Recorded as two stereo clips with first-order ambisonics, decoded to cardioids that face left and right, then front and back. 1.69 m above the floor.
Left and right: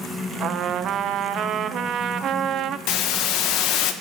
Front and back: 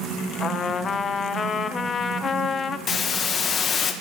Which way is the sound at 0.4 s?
55° right.